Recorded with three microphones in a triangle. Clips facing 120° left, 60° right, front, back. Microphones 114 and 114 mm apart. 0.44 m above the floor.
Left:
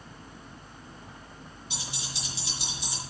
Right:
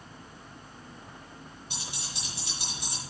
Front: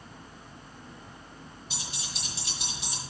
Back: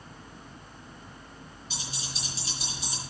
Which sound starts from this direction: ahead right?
Keys jangling, at 1.7 s.